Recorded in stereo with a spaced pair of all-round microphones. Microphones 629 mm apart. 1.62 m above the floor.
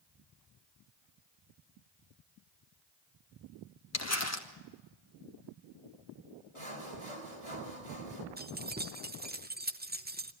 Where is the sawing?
60° right (ahead or behind), 3.5 m.